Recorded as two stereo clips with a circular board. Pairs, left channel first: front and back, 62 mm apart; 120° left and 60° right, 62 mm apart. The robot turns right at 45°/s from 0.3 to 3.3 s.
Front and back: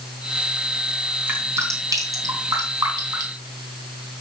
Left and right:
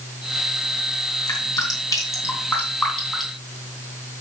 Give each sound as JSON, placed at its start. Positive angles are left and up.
{"t": 1.3, "sound": "dripping", "azimuth_deg": 125, "distance_m": 3.0}